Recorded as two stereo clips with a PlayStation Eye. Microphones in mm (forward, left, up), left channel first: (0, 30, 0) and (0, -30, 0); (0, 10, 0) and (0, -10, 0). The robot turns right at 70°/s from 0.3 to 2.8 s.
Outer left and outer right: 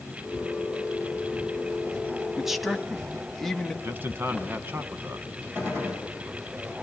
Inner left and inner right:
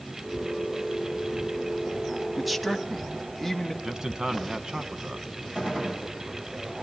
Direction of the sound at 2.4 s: 5° right (ahead or behind).